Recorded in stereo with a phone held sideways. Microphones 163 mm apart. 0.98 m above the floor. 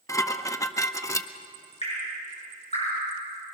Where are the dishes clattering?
20° left (ahead or behind), 0.7 m.